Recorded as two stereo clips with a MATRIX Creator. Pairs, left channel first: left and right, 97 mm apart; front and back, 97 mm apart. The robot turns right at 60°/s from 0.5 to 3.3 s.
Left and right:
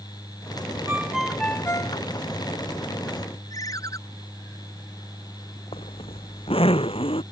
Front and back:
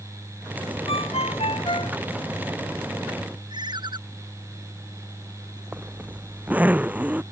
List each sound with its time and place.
0.9 s a ringtone: 20° right; by 2.0 s 45° left
3.5 s a ringtone: 140° left
5.7 s a zipper: 105° left